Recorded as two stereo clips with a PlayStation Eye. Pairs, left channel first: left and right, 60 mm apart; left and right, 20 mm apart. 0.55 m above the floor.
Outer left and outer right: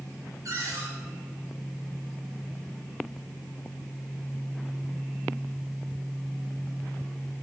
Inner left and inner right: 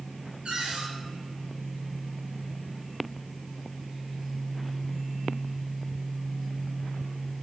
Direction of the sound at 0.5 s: 65° right (ahead or behind).